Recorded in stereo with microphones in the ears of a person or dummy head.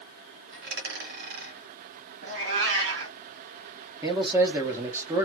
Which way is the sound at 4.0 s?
20° right (ahead or behind).